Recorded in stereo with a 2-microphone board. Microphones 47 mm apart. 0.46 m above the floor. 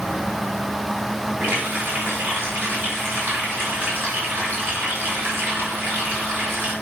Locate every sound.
1.4 s a running tap: 50° right (ahead or behind), 3.5 m